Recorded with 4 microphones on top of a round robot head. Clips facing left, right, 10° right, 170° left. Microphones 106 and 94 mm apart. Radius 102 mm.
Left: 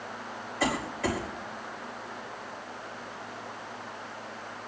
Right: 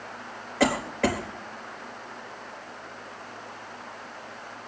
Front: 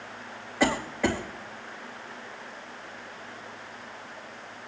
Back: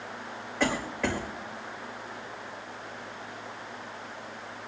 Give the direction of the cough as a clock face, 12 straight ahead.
3 o'clock.